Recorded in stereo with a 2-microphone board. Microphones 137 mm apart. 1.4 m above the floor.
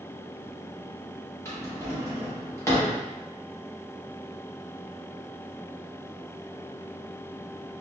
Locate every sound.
1.4 s a drawer: 20° left (ahead or behind), 0.7 m